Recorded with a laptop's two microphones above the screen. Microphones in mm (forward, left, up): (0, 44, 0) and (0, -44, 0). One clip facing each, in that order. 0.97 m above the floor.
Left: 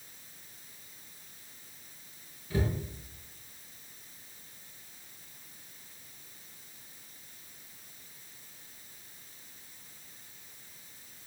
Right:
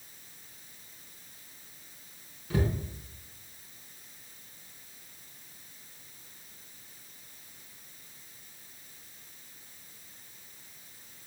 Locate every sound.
2.5 s a cupboard door: 85° right, 4.5 m